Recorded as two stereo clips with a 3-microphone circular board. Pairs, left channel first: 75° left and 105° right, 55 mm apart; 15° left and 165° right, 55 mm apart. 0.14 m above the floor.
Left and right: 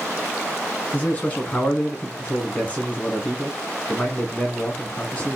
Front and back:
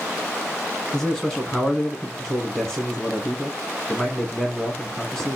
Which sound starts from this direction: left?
A man speaking, at 0.9 s.